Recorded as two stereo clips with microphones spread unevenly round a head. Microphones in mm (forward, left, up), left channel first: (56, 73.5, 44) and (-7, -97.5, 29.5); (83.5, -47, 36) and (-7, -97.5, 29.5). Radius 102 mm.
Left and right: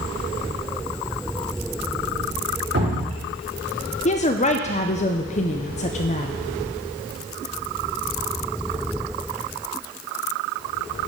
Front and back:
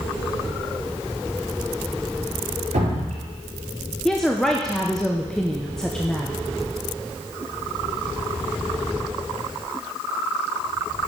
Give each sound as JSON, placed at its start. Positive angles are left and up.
{"t": 2.7, "sound": "dripping", "azimuth_deg": -145, "distance_m": 3.5}
{"t": 4.0, "sound": "a woman speaking", "azimuth_deg": 115, "distance_m": 0.5}